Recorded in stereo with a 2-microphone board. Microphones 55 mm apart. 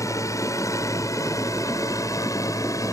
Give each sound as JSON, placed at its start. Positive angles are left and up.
{"t": 0.0, "sound": "a drone", "side_deg": 70}